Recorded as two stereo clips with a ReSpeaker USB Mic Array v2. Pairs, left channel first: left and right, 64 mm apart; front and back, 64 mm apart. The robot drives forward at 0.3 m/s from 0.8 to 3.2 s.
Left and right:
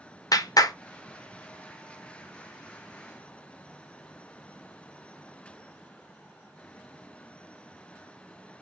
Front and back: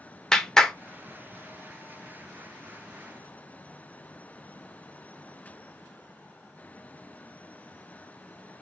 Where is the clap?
80° left, 0.6 m.